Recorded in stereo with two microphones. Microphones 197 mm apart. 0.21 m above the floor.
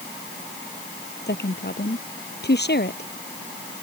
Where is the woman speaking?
60° left (ahead or behind).